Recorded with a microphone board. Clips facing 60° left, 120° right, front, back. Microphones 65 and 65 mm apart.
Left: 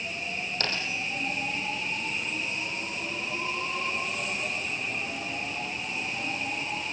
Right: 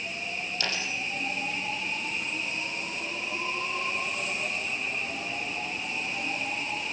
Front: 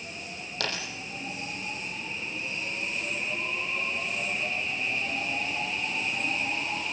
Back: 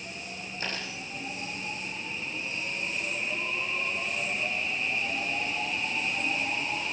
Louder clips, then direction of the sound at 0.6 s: Even, front 3 dB; 15° left.